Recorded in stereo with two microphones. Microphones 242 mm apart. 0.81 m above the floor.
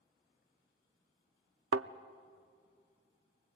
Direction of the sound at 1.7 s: 80° right.